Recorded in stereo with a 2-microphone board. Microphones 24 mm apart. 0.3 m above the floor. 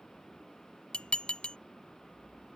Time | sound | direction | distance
0.9 | dishes clattering | 50° left (ahead or behind) | ?